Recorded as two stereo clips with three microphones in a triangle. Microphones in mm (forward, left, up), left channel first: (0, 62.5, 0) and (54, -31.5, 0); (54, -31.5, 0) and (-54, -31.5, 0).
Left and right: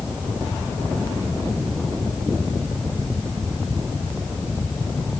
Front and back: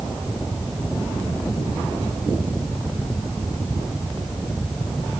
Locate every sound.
Only background noise.